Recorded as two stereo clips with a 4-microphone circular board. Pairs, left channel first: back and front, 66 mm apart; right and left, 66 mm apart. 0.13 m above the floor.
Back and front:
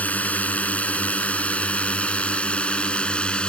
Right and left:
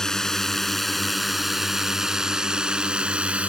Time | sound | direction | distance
0.0 | a drone | 160° right | ?